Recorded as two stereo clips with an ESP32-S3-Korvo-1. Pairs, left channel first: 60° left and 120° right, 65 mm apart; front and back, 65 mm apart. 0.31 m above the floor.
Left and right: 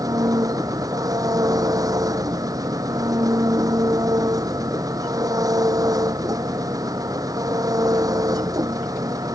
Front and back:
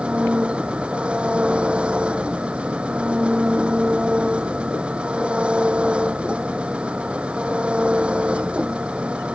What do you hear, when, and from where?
0.0 s an engine running: 110° right